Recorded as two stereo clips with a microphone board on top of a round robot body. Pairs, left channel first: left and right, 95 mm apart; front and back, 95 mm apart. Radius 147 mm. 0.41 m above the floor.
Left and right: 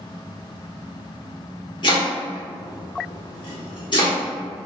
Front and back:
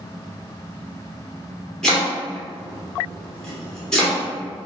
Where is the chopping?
80° left, 1.3 m.